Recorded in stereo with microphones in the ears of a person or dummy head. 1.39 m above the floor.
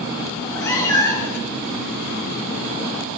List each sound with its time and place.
0.3 s a cat meowing: 15° left (ahead or behind), 1.1 m